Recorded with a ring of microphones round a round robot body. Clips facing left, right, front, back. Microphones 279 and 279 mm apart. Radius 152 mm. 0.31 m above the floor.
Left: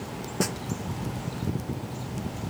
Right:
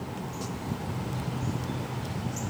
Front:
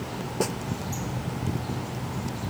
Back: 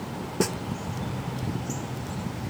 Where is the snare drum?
120° left.